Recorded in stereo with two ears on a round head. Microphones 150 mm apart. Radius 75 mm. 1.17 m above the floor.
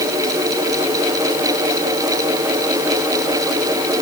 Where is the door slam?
I don't hear a door slam.